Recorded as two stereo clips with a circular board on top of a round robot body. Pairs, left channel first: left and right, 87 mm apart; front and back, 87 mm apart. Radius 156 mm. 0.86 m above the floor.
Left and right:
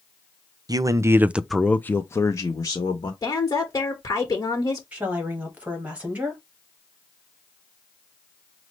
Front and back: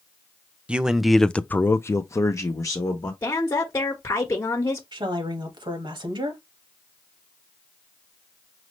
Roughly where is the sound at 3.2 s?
Ahead left.